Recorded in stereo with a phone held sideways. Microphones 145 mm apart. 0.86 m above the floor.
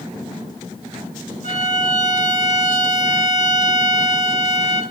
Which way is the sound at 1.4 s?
55° left (ahead or behind).